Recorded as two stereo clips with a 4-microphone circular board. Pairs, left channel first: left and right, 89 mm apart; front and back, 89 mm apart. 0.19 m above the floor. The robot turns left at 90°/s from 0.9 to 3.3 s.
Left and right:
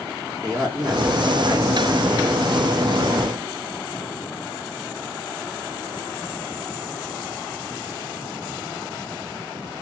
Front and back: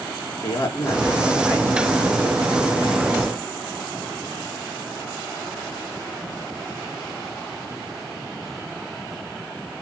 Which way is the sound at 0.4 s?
50° right.